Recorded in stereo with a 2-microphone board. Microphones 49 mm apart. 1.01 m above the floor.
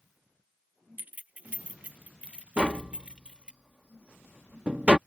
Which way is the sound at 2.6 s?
25° right (ahead or behind).